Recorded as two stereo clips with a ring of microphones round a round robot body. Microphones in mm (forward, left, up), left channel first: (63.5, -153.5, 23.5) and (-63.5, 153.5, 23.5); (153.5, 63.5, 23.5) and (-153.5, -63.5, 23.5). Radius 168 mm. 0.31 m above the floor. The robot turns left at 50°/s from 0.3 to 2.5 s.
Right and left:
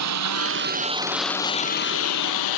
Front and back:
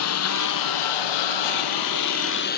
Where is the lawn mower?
70° left; by 2.6 s 40° right.